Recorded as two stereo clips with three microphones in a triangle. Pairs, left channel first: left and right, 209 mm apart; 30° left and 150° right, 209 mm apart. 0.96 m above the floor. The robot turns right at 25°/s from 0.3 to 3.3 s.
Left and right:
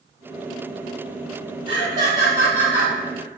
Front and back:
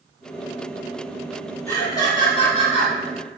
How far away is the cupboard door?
I don't hear a cupboard door.